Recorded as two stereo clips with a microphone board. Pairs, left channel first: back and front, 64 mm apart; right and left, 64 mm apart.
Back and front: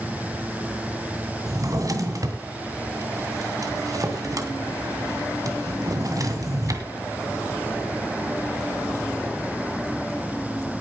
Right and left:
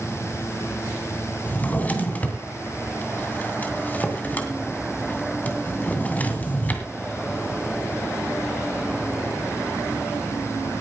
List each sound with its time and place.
1.5 s a drawer: 25° right, 2 m